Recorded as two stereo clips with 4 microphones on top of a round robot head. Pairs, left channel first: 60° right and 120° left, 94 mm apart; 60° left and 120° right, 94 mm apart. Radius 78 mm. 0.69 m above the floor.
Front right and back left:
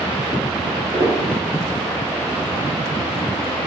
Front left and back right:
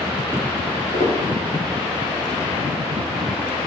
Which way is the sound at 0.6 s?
65° left.